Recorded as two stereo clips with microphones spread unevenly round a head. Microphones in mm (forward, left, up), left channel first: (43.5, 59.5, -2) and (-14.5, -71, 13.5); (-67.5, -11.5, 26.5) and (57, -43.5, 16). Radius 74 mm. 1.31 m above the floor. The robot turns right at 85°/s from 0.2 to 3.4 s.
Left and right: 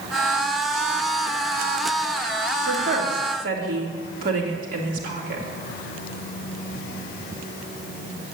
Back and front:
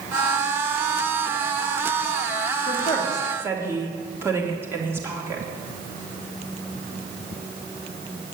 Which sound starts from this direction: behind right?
A woman speaking, at 2.7 s.